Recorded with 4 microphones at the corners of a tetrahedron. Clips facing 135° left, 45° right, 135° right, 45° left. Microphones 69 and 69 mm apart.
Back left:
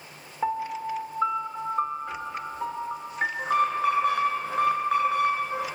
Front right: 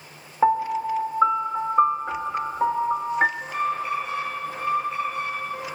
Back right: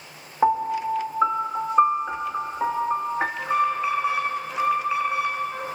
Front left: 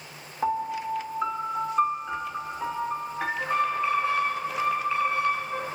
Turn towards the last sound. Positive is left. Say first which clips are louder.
# back left 3 dB, back right 2 dB
turn(degrees=150)